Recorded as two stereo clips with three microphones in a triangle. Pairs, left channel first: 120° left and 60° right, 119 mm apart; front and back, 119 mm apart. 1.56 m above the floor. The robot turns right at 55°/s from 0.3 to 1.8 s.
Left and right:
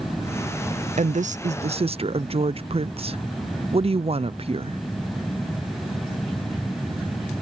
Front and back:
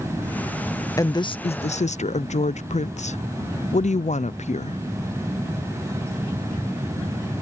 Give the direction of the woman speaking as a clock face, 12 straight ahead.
2 o'clock.